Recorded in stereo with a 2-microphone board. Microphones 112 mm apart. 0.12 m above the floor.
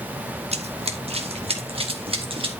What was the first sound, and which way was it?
Running footsteps, 70° right (ahead or behind).